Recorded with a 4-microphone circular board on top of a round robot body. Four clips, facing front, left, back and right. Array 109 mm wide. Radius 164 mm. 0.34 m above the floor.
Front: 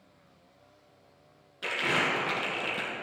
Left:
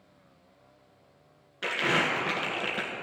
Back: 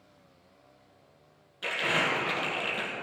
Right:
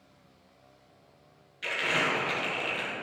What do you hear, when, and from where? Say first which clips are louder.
1.6 s crumpling: left 2 dB, even; 80° left, 1.6 m